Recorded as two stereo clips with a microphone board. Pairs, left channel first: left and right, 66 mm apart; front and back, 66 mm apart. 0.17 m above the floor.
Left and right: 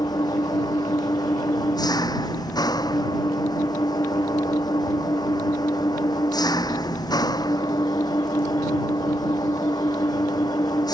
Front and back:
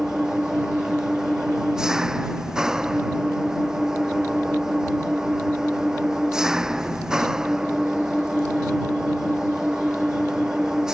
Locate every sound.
0.0 s an engine running: 100° left